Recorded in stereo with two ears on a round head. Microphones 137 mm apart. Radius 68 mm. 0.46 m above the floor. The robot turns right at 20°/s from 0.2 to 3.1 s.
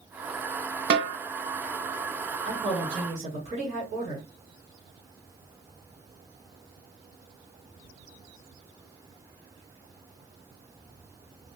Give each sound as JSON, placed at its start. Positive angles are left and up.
{"t": 0.9, "sound": "a snare drum", "side_deg": -70, "distance_m": 0.7}
{"t": 2.5, "sound": "a woman speaking", "side_deg": -30, "distance_m": 1.9}